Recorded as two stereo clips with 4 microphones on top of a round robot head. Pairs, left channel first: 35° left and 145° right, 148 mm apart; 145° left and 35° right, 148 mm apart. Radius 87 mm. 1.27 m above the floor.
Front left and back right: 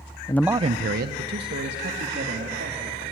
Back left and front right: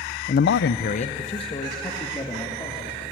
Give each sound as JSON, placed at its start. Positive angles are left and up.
{"t": 0.3, "sound": "a man speaking", "azimuth_deg": 100, "distance_m": 0.5}